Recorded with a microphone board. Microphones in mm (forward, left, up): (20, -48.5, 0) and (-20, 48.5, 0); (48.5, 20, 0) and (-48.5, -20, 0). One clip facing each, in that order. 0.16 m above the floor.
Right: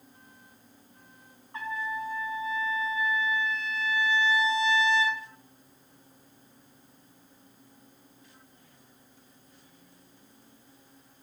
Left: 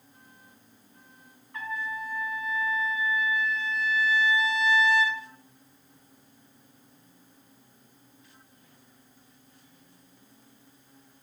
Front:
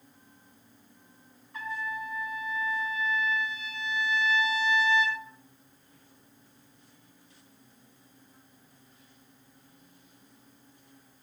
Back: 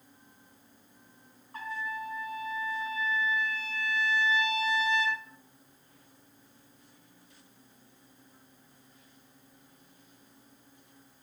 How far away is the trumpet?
About 0.8 m.